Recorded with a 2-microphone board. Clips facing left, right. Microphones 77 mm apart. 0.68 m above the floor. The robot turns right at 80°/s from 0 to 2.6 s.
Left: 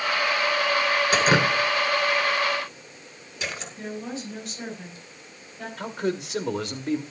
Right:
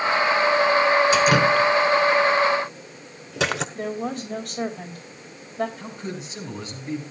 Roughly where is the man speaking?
Left.